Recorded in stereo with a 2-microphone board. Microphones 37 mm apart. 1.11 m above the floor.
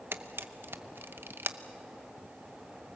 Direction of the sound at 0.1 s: 75° right (ahead or behind).